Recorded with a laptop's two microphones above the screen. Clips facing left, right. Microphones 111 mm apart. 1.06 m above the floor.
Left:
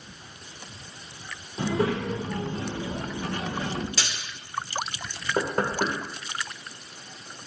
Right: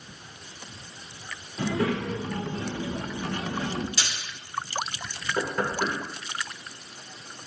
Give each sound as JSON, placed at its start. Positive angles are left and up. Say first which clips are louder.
{"t": 1.6, "sound": "a child speaking", "louder": "left 1 dB", "side_deg": 25, "distance_m": 2.5}
{"t": 4.0, "sound": "a splash", "louder": "left 1 dB", "side_deg": 80, "distance_m": 3.0}
{"t": 5.4, "sound": "knocking", "louder": "left 2 dB", "side_deg": 50, "distance_m": 2.5}